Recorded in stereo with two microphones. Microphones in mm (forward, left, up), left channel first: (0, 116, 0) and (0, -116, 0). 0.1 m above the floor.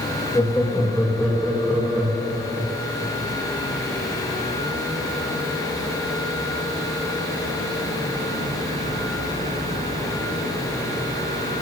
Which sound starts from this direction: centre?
Laughter, at 0.3 s.